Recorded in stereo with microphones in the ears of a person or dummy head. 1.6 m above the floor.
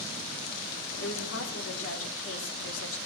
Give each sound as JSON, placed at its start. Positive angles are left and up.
{"t": 1.0, "sound": "a woman speaking", "side_deg": 75, "distance_m": 4.0}